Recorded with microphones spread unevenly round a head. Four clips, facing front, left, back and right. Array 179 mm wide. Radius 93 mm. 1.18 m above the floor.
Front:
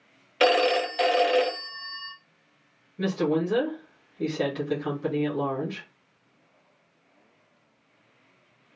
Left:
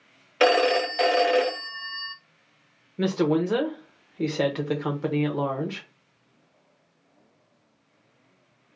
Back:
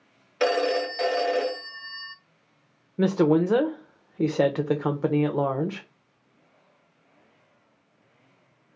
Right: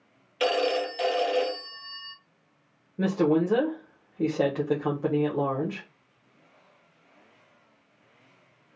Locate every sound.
0.4 s a phone ringing: 60° left, 0.6 m
3.0 s a woman speaking: straight behind, 0.7 m